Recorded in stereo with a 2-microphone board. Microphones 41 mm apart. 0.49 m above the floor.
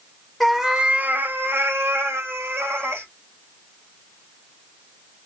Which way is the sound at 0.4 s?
5° left (ahead or behind).